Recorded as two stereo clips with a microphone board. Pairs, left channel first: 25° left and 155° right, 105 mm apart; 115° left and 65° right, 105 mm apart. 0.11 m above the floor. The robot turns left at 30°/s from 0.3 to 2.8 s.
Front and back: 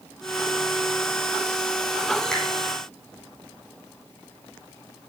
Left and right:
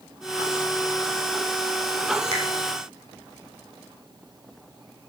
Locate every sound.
2.3 s a finger snap: 60° right, 3 m; by 2.4 s 65° right, 3 m